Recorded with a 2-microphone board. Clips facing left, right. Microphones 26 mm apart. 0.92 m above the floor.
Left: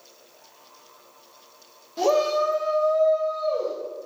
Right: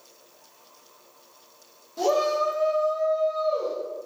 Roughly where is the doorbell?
I don't hear a doorbell.